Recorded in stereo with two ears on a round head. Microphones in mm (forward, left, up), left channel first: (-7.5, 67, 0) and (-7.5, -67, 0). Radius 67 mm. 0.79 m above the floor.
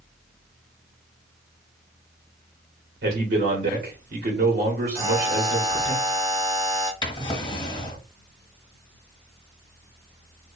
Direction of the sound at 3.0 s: 70° right (ahead or behind).